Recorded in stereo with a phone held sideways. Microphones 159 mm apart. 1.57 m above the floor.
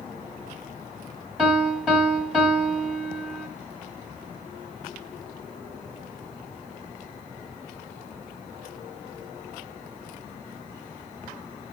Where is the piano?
5° right (ahead or behind), 1.4 m.